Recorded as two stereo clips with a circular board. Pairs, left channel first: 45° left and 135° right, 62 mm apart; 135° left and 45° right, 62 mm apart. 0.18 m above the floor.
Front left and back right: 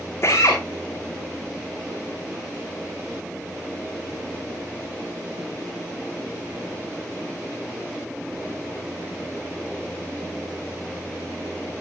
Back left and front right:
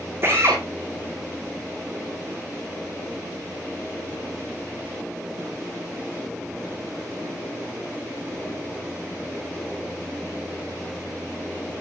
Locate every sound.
0.2 s a drill: 5° left, 6 m